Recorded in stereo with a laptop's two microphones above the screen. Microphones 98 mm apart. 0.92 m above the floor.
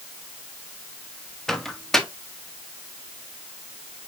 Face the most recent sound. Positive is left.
turn(degrees=5)  # may be behind; listen again after turning